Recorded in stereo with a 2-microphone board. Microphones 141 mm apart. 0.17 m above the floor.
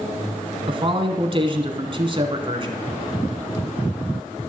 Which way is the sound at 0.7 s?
40° right (ahead or behind).